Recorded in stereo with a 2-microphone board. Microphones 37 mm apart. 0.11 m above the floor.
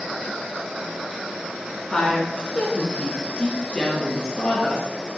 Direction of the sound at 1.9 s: 20° left (ahead or behind).